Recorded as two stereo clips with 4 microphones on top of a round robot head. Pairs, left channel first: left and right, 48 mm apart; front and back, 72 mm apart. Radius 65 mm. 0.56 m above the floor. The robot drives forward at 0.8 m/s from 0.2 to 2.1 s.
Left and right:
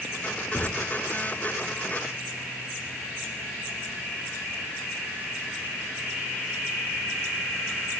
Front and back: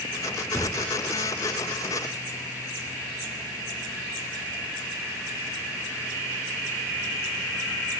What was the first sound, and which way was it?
A thud, 65° left.